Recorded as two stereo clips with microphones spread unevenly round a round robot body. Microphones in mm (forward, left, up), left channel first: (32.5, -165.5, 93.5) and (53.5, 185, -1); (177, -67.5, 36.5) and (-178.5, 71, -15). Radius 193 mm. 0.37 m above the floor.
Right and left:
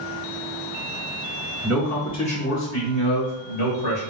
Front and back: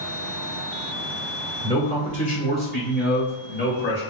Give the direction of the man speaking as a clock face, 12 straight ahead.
10 o'clock.